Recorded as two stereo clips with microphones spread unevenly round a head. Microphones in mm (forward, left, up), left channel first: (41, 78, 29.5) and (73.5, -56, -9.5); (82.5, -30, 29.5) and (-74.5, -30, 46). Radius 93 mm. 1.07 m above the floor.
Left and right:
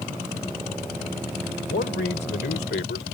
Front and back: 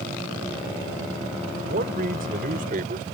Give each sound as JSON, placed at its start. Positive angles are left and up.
{"t": 1.7, "sound": "a man speaking", "azimuth_deg": 140}